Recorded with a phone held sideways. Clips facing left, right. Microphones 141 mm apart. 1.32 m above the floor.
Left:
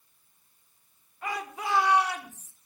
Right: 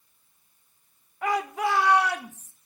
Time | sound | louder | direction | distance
1.2 | a shout | right 8 dB | 75° right (ahead or behind) | 1.8 m